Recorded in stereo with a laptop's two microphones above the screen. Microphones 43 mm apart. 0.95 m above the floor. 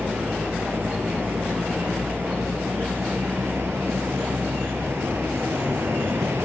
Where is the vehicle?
80° right.